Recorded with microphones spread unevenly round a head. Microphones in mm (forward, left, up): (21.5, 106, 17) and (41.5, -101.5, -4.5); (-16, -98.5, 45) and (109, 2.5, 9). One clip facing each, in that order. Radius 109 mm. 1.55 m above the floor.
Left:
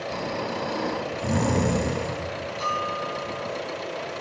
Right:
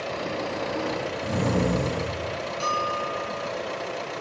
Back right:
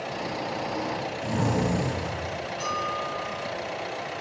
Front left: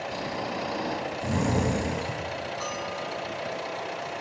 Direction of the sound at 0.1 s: 90° left.